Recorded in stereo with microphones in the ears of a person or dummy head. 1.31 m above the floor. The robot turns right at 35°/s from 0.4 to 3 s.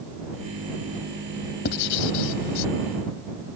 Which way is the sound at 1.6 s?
55° left (ahead or behind).